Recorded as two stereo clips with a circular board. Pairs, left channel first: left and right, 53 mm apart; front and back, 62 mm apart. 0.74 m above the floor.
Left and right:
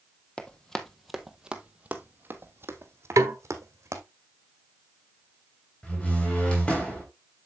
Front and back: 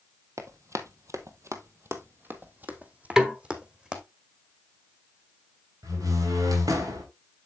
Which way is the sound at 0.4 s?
155° left.